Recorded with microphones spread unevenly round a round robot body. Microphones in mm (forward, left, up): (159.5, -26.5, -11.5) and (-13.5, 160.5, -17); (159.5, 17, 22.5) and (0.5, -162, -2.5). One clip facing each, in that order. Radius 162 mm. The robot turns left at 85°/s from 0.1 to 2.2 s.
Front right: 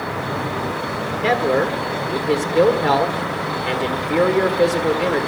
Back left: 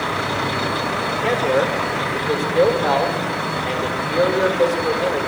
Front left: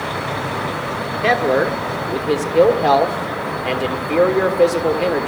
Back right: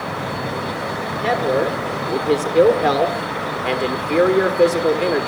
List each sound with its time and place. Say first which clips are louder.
1.2 s a man speaking: front right 1 dB, front left 2 dB; straight ahead, 1.6 m; by 5.3 s 80° right, 1.6 m